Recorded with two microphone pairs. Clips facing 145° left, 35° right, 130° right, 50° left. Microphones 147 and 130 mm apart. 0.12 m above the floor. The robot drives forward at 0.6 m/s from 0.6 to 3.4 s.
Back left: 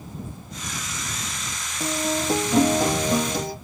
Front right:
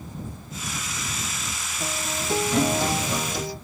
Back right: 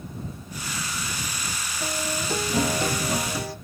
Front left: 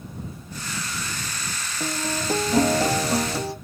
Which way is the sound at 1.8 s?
85° left.